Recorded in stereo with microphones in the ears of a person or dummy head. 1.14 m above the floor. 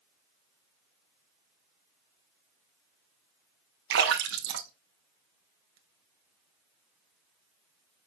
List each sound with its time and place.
3.9 s a splash: 70° right (ahead or behind), 1.0 m